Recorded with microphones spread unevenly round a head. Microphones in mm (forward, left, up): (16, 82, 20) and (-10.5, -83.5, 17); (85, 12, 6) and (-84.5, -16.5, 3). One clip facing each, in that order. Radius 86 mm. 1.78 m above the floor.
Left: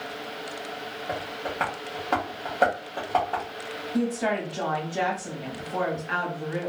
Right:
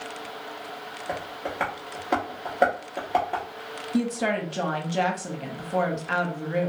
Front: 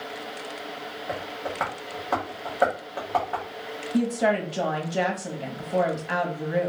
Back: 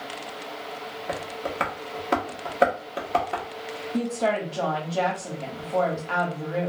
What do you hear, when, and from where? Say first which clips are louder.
1.1 s tapping: right 1 dB, back 1 dB; 170° right, 0.9 m
3.9 s a woman speaking: right 1 dB, front 2 dB; 60° right, 0.8 m